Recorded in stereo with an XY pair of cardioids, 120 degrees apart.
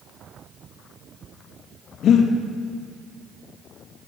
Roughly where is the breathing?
Ahead left.